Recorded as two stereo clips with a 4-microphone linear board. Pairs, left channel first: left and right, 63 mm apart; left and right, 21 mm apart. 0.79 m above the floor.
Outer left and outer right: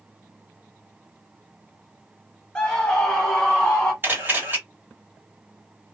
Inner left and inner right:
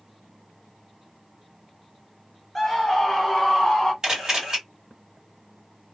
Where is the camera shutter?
35° right (ahead or behind), 2.0 m.